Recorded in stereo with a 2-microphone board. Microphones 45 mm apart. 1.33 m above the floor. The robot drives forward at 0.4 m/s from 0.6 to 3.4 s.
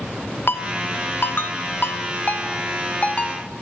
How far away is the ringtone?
About 0.8 m.